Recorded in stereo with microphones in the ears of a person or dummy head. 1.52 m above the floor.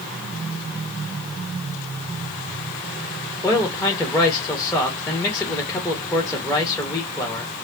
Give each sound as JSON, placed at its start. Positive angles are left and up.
{"t": 3.4, "sound": "a man speaking", "side_deg": 5, "distance_m": 1.4}